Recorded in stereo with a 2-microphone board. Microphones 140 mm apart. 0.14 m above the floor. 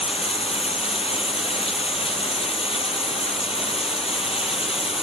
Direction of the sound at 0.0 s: 45° left (ahead or behind).